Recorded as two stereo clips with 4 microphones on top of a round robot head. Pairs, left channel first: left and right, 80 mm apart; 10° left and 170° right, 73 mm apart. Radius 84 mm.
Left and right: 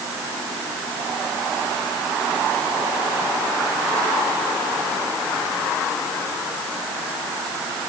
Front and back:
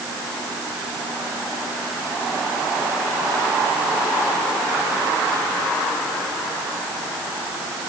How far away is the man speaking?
I don't hear a man speaking.